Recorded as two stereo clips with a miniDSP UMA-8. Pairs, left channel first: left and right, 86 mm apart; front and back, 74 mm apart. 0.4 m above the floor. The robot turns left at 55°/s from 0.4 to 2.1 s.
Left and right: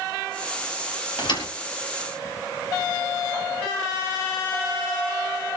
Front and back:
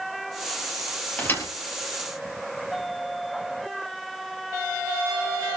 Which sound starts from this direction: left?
A thud, at 1.2 s.